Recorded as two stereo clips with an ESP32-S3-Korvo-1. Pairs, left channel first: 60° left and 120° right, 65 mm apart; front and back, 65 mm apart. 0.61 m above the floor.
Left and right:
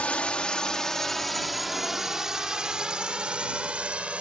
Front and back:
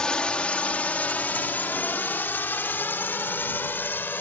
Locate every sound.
0.0 s a drone: 50° left; by 4.2 s 50° right